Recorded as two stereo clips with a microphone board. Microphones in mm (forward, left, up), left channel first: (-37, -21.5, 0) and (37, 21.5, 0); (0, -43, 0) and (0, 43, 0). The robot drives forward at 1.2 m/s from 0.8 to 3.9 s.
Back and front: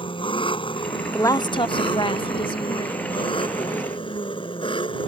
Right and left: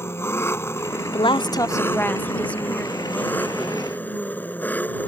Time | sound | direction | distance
0.0 | an engine running | 150° right | ?
1.1 | a woman speaking | 85° right | ?